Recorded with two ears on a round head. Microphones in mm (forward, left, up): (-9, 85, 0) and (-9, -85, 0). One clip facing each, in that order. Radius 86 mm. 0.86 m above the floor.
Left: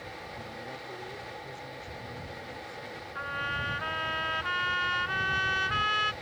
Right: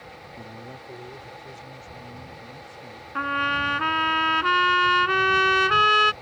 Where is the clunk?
I don't hear a clunk.